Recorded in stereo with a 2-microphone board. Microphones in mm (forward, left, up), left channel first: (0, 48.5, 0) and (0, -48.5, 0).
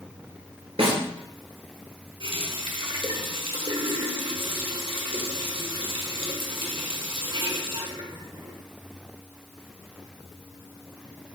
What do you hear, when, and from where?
0.8 s a snare drum: 85° right, 2.5 m
2.2 s a running tap: 65° right (ahead or behind), 1.1 m